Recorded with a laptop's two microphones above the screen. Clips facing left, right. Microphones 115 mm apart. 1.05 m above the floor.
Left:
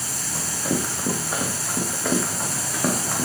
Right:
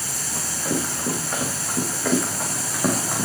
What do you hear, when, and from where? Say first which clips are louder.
0.3 s running footsteps: left 1 dB; 10° left (ahead or behind), 5.5 m; by 3.2 s 5° right (ahead or behind), 5 m